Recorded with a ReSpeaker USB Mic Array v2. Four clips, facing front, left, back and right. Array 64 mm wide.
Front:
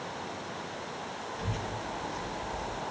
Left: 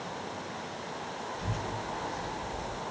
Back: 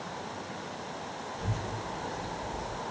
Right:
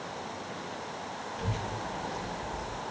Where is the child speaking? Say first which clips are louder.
Right 2 dB, even; 80° right, 2.5 m; by 2.8 s 45° right, 3 m.